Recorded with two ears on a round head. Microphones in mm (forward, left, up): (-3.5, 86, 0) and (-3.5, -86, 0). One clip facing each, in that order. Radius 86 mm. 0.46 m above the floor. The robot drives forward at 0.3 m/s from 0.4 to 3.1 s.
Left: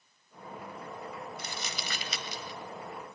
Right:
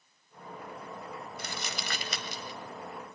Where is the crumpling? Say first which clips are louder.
Right 1 dB; 50° right (ahead or behind), 1.7 m; by 2.6 s 40° right (ahead or behind), 1.9 m.